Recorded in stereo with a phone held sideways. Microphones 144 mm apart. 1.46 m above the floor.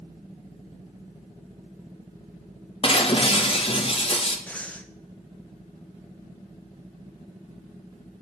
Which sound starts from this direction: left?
Breaking glass, at 2.8 s.